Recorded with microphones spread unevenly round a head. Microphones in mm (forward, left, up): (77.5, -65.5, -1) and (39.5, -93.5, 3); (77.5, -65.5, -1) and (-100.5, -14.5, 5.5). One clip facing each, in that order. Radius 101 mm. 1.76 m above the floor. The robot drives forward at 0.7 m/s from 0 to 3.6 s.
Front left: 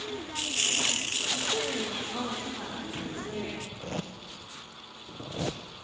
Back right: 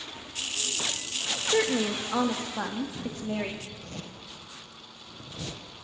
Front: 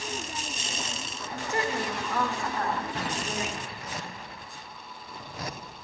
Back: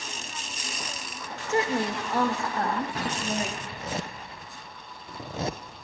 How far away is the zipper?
About 0.9 m.